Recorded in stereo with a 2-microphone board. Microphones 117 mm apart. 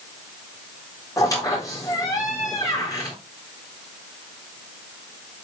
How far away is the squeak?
About 4 m.